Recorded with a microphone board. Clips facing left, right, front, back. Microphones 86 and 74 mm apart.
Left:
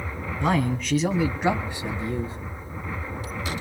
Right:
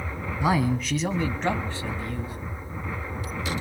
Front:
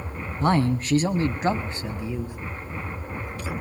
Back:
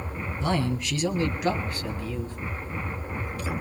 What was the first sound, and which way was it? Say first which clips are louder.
A man speaking: even, front 5 dB; 10° right.